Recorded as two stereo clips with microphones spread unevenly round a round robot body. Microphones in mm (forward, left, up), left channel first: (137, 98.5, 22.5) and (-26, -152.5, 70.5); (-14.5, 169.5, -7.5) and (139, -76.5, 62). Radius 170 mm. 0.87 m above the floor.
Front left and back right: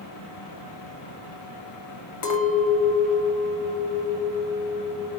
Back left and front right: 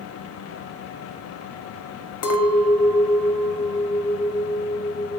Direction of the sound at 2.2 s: 85° left.